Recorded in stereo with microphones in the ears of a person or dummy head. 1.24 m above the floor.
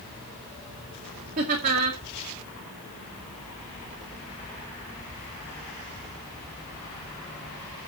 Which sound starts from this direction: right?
Laughter, at 1.4 s.